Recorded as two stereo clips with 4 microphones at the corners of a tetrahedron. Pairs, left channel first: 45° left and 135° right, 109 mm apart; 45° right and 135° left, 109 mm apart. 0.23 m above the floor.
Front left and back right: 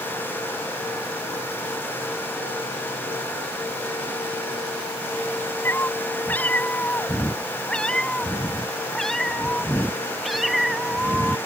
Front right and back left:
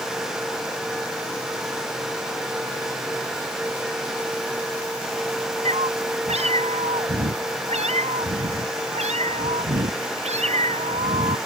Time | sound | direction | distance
5.7 | a cat meowing | 115° left | ?